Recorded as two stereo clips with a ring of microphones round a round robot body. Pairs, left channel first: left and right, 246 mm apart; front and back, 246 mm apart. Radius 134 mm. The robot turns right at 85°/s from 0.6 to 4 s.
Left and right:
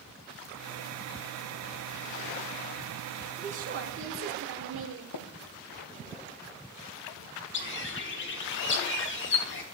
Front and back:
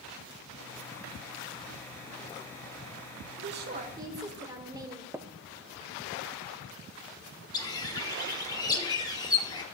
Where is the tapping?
100° left, 0.5 m.